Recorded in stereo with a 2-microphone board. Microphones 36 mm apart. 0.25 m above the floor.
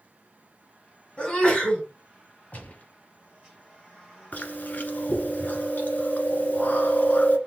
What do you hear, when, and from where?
1.2 s a sneeze: 30° left (ahead or behind), 2.5 m
2.5 s a gunshot: 50° left (ahead or behind), 1.2 m
4.3 s chewing: 50° left (ahead or behind), 1.1 m